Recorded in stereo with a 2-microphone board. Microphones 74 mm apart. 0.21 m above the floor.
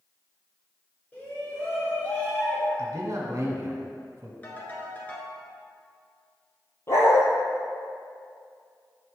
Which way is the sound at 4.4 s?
25° left (ahead or behind).